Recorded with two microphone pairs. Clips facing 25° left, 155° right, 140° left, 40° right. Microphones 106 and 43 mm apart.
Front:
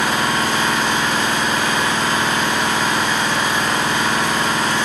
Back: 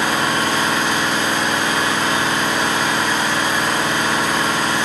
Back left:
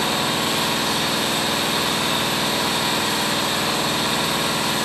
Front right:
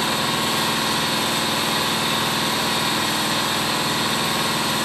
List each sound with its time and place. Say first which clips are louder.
0.0 s an engine running: even, even; 130° left, 1.9 m